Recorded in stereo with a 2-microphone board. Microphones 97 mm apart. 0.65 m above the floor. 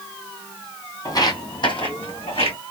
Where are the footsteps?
40° left (ahead or behind), 1.2 m; by 2.6 s 75° left (ahead or behind), 2.5 m.